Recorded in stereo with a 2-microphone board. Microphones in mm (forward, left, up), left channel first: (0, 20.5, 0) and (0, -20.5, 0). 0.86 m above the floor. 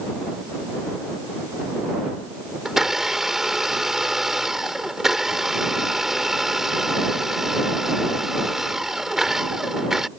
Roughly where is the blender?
Centre.